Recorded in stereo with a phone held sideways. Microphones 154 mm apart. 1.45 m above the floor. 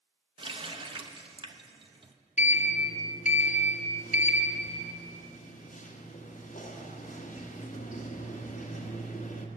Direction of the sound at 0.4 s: 35° right (ahead or behind).